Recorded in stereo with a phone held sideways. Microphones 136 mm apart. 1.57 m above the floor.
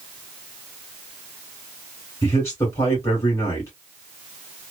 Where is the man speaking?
20° left (ahead or behind), 1.6 m.